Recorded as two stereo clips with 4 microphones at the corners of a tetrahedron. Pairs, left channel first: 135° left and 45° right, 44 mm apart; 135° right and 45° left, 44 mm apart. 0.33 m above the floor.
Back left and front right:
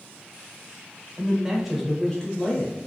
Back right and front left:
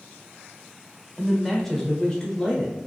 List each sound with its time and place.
1.2 s a man speaking: 35° right, 0.9 m; by 2.8 s 165° left, 1.0 m